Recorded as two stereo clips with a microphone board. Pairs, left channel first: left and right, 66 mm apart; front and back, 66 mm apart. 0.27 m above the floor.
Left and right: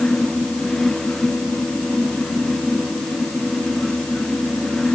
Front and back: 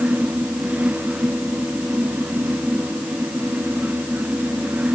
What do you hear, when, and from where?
Only background noise.